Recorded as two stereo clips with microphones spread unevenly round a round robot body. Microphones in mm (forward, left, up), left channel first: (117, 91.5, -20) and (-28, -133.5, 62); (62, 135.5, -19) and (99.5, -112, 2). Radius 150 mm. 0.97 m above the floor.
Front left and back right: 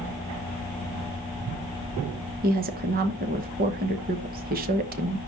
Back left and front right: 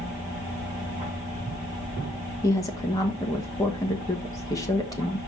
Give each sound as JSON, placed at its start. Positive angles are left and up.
{"t": 2.4, "sound": "a woman speaking", "azimuth_deg": 170, "distance_m": 1.0}